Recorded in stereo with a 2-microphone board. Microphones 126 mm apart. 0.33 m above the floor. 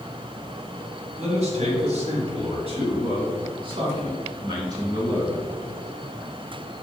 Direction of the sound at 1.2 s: 60° right (ahead or behind).